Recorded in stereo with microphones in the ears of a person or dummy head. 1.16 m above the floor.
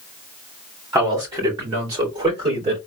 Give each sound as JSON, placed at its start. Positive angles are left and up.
{"t": 0.9, "sound": "a man speaking", "side_deg": -20, "distance_m": 2.5}